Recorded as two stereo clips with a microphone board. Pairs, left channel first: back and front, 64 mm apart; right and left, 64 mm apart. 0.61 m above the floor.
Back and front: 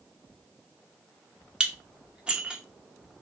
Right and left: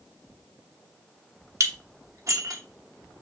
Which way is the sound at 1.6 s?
70° left.